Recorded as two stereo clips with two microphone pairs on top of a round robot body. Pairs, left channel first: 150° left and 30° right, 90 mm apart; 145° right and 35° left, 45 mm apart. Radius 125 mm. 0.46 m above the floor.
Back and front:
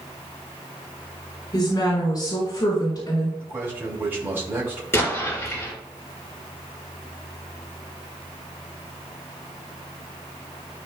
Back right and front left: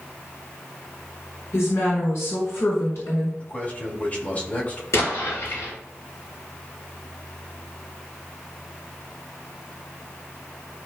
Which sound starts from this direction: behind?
A woman speaking, at 1.5 s.